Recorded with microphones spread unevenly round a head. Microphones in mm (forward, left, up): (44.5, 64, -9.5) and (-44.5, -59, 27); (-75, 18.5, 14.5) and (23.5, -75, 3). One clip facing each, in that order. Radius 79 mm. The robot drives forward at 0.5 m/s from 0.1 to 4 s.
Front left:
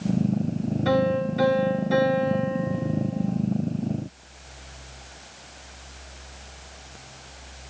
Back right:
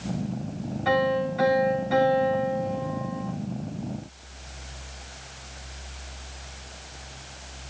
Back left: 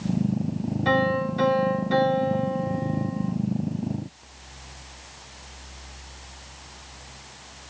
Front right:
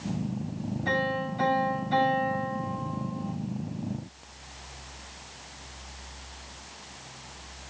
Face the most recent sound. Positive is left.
turn(degrees=115)